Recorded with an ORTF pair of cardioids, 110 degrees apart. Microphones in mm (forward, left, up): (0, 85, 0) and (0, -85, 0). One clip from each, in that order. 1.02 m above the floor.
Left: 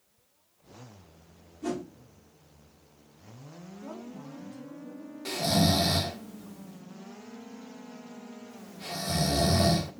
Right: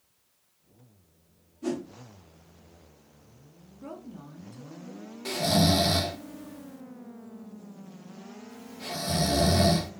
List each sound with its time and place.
1.6 s a whoosh: 5° right, 1.3 m
3.8 s a woman speaking: 40° right, 1.8 m
5.2 s snoring: 5° right, 0.5 m